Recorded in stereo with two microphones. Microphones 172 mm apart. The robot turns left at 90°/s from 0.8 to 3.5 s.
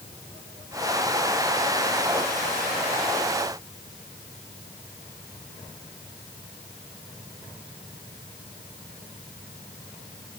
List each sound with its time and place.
Only background noise.